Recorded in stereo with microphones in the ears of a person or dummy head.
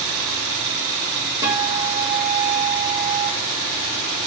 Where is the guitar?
10° right (ahead or behind), 7 m.